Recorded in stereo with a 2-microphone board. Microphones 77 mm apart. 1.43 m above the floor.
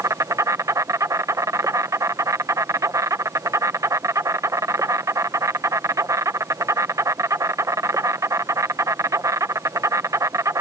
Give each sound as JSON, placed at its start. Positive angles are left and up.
{"t": 0.0, "sound": "an insect", "side_deg": -45}